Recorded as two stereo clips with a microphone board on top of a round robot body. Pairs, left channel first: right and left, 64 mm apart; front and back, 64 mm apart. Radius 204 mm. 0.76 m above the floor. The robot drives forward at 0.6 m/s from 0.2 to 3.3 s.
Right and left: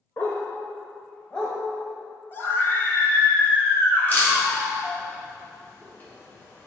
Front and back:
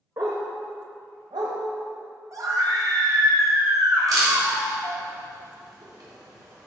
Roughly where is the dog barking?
Behind right.